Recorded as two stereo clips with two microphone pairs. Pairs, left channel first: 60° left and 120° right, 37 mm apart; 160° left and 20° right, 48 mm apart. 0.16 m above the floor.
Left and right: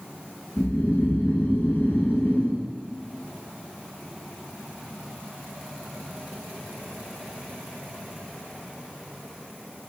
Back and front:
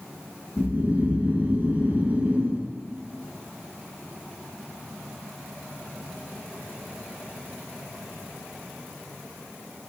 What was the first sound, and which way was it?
Snoring, 35° left.